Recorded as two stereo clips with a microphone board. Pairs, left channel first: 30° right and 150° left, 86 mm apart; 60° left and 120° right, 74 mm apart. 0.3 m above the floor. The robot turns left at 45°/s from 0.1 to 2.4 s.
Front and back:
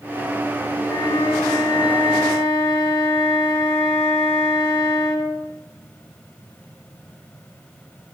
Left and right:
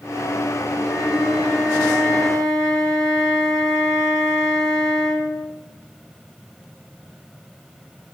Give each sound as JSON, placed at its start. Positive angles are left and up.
{"t": 0.8, "sound": "a flute", "azimuth_deg": 40, "distance_m": 1.7}